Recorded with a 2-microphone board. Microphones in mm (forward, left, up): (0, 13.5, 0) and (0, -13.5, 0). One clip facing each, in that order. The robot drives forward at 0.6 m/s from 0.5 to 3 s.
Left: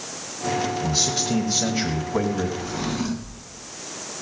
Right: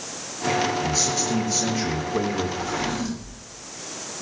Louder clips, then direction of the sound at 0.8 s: Even; 45° left (ahead or behind).